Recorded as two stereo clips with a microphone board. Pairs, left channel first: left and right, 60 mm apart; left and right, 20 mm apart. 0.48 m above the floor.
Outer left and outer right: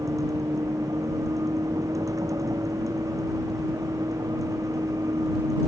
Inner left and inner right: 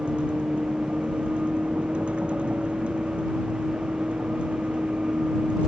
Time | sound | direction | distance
0.0 | a vehicle | 75° right (ahead or behind) | ?